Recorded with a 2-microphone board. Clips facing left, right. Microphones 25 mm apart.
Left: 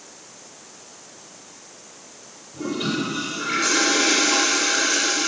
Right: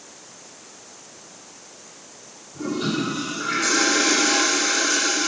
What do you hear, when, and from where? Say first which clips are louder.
2.5 s a toilet flushing: even; 50° left (ahead or behind), 6.5 m